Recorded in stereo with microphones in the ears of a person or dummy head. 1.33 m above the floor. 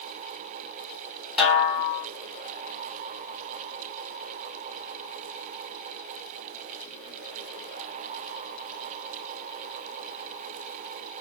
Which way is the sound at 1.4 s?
Centre (ahead or behind).